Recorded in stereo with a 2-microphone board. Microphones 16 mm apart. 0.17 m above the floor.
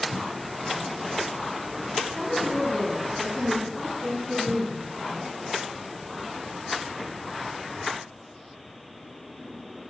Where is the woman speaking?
20° left (ahead or behind), 1.5 m; by 4.8 s 5° left (ahead or behind), 2 m.